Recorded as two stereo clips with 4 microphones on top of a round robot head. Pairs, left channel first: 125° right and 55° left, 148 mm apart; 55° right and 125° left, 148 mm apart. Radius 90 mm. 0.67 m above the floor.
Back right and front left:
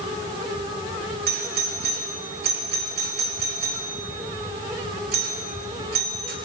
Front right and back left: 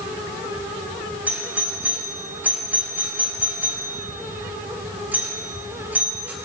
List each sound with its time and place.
1.3 s a doorbell: 50° left, 5.5 m